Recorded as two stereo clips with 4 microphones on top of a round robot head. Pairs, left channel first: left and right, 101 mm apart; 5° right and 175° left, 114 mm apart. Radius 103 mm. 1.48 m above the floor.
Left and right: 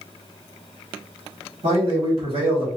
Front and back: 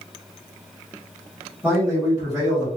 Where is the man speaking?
110° right, 1.5 m; by 2.7 s 125° right, 1.0 m.